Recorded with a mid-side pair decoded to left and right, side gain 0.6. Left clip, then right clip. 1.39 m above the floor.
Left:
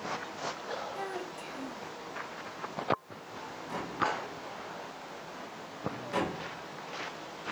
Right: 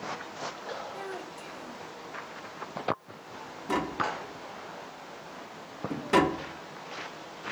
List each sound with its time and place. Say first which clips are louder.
0.9 s a child speaking: left 1 dB; straight ahead, 4.5 m
3.7 s tapping: right 3 dB; 60° right, 2.5 m